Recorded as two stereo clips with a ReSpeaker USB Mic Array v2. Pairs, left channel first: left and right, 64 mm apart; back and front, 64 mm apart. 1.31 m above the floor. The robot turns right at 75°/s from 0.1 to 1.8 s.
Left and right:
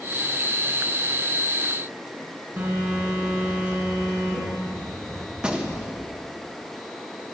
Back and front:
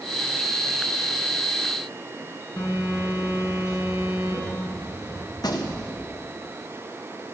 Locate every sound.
2.6 s a phone buzzing: 155° right, 4 m
5.3 s a gunshot: 165° right, 1.1 m